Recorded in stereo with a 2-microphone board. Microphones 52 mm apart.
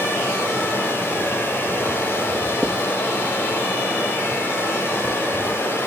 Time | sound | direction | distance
0.0 | running water | 45° left (ahead or behind) | 7.5 m
2.6 | writing | 20° right (ahead or behind) | 3 m